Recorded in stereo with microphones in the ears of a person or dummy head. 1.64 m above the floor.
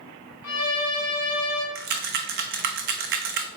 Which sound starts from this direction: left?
A violin, at 0.4 s.